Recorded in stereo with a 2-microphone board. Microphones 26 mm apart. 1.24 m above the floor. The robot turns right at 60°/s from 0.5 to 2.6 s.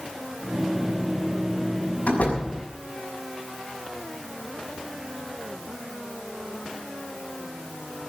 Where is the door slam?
60° left (ahead or behind), 6 m; by 2.4 s 85° left, 6 m.